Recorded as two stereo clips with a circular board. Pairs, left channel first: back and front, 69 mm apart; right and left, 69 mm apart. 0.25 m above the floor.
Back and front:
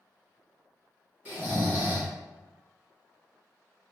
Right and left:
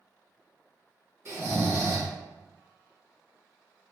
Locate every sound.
1.2 s snoring: 60° left, 1.8 m